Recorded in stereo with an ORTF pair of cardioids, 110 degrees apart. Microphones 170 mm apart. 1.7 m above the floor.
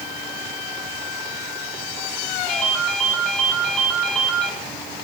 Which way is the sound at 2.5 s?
Straight ahead.